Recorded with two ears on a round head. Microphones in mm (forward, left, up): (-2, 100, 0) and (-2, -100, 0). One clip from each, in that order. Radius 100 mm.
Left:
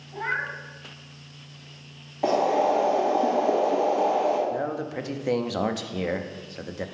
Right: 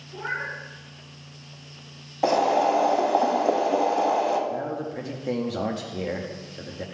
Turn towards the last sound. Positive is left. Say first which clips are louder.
# left 1 dB
turn(degrees=25)  # may be behind; listen again after turning